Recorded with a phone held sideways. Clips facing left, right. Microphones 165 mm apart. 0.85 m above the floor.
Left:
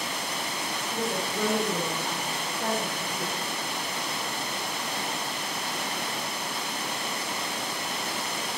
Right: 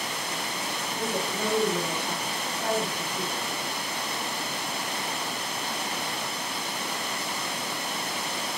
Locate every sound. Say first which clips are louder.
0.9 s a woman speaking: even; 65° left (ahead or behind), 4.5 m